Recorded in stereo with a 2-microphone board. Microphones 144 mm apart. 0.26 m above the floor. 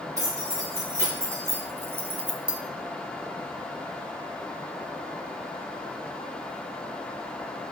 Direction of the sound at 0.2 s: 20° right (ahead or behind).